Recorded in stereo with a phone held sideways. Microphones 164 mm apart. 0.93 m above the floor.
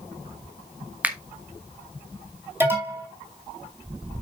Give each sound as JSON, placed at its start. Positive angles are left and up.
{"t": 1.0, "sound": "a finger snap", "side_deg": -10, "distance_m": 1.2}
{"t": 2.6, "sound": "an alarm", "side_deg": -15, "distance_m": 4.0}